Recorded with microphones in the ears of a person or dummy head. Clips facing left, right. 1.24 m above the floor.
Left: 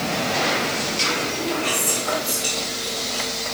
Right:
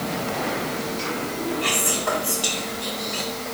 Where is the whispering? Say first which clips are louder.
Even; 85° right, 1.6 m.